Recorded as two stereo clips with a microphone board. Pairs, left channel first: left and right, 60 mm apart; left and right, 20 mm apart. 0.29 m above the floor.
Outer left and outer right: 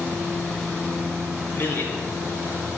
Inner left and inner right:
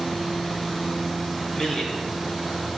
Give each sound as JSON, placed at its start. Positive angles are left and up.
{"t": 1.5, "sound": "a man speaking", "side_deg": 40, "distance_m": 3.0}